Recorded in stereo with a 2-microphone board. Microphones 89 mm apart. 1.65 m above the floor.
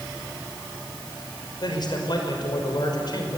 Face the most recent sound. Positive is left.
turn(degrees=55)  # may be behind; listen again after turning